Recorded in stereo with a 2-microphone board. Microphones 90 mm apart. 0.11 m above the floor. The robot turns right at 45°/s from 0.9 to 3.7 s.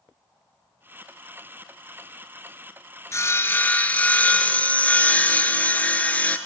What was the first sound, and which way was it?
Sawing, 35° left (ahead or behind).